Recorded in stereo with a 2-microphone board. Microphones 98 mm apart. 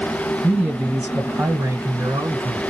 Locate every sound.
0.4 s a man speaking: centre (ahead or behind), 1.6 m; by 2.6 s 40° right (ahead or behind), 1.2 m